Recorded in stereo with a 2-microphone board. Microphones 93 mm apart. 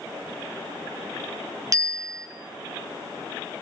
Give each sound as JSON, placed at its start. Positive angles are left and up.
{"t": 1.7, "sound": "a bicycle bell", "side_deg": -35, "distance_m": 2.5}